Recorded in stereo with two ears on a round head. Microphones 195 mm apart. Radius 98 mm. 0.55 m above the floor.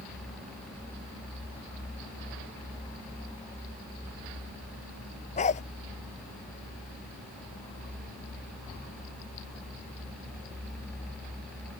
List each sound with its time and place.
5.4 s a dog barking: 35° left (ahead or behind)